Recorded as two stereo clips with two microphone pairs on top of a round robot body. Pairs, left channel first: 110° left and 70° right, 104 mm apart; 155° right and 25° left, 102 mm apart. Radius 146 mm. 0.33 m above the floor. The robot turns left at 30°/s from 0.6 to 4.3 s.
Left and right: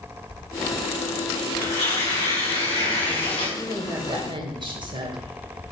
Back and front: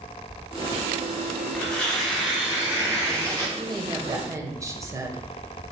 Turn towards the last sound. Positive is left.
turn(degrees=-35)